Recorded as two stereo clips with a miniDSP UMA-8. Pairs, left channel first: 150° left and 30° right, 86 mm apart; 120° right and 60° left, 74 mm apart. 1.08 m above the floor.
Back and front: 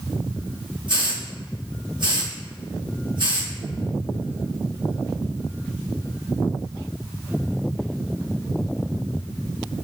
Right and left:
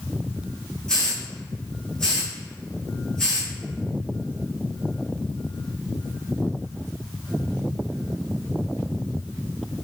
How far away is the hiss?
About 1.1 m.